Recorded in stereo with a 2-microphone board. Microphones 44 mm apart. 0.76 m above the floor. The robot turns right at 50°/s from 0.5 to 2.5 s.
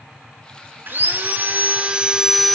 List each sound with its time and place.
0.9 s sawing: 85° right, 0.6 m; by 2.6 s straight ahead, 0.6 m